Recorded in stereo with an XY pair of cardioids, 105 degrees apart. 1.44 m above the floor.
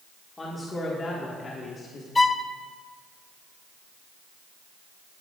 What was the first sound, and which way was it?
A man speaking, 20° left.